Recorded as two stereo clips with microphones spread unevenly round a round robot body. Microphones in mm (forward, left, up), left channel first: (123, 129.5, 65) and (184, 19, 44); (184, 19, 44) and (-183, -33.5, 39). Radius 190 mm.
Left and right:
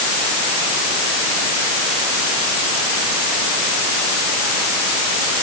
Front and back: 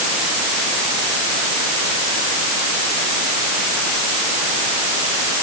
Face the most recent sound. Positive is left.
No sound to turn to.